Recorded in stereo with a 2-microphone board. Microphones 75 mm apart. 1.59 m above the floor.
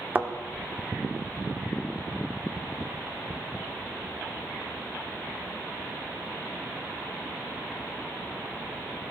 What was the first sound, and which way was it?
A thud, 25° right (ahead or behind).